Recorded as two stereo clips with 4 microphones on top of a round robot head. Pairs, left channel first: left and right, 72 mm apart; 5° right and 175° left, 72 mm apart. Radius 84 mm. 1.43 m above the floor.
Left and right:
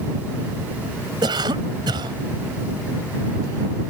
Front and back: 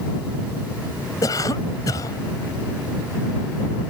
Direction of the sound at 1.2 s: 55° right.